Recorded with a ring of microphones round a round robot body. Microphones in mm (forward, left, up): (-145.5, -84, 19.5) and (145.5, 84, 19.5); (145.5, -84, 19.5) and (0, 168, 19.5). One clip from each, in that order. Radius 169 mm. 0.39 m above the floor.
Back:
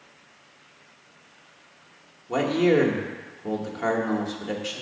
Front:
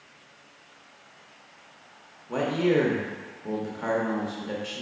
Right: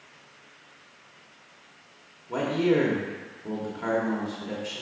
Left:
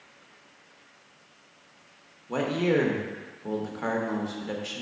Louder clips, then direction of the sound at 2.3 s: Back 3 dB, right 1 dB; 160° left.